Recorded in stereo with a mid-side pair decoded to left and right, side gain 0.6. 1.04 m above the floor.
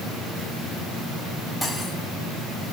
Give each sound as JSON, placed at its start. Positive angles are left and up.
{"t": 1.6, "sound": "cutlery clinking", "azimuth_deg": 0, "distance_m": 4.0}